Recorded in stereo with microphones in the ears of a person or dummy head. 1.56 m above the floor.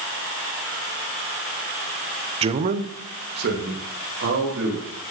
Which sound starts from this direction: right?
A man speaking, at 2.4 s.